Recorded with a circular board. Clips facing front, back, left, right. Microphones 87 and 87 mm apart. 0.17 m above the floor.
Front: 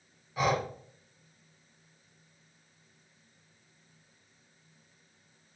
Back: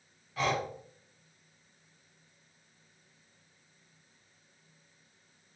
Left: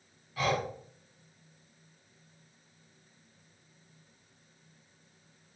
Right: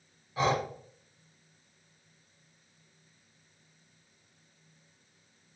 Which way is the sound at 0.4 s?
65° right.